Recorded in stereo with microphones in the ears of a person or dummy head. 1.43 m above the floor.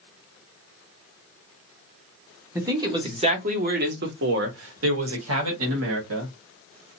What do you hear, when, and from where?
2.5 s a man speaking: 15° right (ahead or behind), 1.0 m; by 6.3 s 75° right (ahead or behind), 1.8 m